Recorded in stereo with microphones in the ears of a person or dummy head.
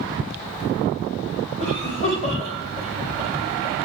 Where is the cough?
40° left (ahead or behind), 5 m.